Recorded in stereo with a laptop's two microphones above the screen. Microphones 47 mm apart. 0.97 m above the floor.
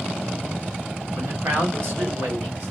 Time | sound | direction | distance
1.1 | a man speaking | 70° right (ahead or behind) | 3 m